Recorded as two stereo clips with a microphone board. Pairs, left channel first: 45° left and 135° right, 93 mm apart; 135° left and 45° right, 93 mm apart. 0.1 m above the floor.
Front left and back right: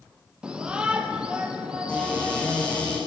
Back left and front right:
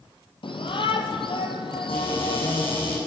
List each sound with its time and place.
0.4 s a shout: 145° left, 3.5 m
1.9 s a cupboard door: 125° left, 8 m